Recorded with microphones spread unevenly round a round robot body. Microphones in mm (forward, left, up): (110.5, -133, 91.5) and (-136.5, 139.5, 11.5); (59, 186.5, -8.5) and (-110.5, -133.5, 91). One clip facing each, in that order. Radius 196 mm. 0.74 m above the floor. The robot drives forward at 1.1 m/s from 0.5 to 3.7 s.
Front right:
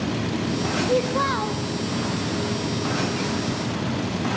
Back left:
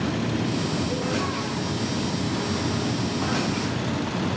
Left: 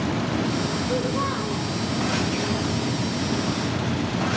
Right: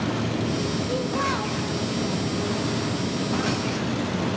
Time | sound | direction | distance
0.9 | a child speaking | 35° right | 3 m